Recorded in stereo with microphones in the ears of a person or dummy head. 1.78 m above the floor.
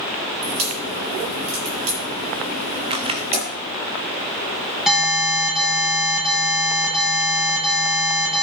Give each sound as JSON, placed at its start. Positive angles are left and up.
{"t": 0.4, "sound": "a crack", "side_deg": -30, "distance_m": 7.5}
{"t": 2.9, "sound": "a camera shutter", "side_deg": -25, "distance_m": 0.6}
{"t": 4.9, "sound": "an alarm", "side_deg": 0, "distance_m": 7.0}